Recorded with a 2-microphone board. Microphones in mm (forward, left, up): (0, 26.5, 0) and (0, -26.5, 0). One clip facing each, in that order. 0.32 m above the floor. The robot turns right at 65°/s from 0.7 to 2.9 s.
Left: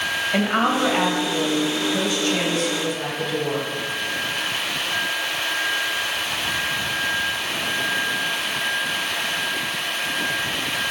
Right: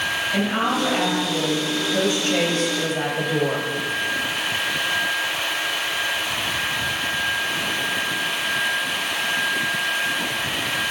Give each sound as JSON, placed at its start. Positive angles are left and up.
{"t": 0.3, "sound": "a woman speaking", "azimuth_deg": 135, "distance_m": 1.9}